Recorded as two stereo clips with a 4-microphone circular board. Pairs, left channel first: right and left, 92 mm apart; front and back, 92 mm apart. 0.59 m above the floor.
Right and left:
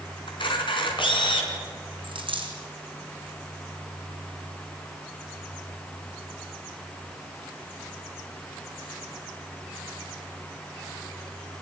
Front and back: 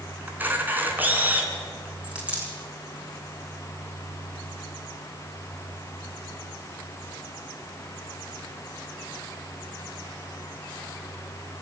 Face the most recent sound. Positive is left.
turn(degrees=105)